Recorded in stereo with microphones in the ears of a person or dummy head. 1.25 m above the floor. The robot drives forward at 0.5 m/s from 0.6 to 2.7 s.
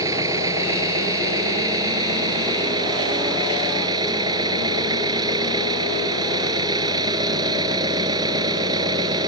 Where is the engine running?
20° right (ahead or behind); by 9.3 s 25° right (ahead or behind).